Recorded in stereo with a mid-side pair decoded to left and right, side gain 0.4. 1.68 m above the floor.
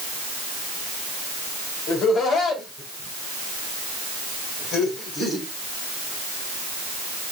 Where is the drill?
No drill in this recording.